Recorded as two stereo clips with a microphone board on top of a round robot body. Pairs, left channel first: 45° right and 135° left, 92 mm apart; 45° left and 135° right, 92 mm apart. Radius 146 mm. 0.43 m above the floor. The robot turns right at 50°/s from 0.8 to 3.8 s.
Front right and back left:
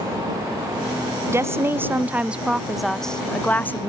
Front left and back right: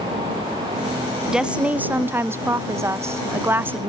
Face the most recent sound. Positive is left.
turn(degrees=-85)